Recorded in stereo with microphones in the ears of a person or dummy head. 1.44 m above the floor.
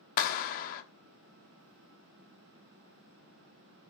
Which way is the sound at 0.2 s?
45° left (ahead or behind).